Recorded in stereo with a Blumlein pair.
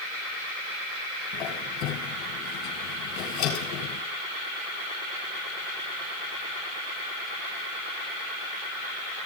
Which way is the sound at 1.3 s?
35° left.